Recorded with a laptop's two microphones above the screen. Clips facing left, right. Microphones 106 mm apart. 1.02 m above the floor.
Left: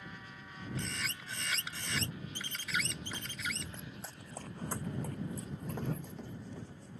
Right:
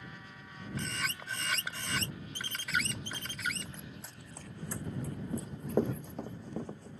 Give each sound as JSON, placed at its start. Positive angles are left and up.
{"t": 0.8, "sound": "a bird", "side_deg": -60}
{"t": 2.8, "sound": "running footsteps", "side_deg": -20}
{"t": 5.3, "sound": "running footsteps", "side_deg": -45}